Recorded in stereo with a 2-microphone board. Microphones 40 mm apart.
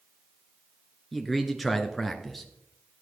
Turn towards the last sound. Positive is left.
turn(degrees=0)  # may be behind; listen again after turning